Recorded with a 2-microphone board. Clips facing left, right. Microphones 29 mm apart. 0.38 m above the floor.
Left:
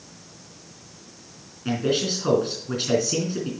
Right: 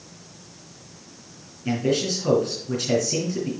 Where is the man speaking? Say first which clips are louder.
Right 1 dB; 35° left (ahead or behind), 3.5 m.